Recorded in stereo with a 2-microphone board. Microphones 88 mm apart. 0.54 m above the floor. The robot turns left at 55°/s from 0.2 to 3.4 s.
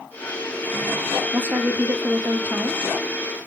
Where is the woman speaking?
20° right (ahead or behind), 0.7 m; by 2.8 s 15° right (ahead or behind), 0.7 m.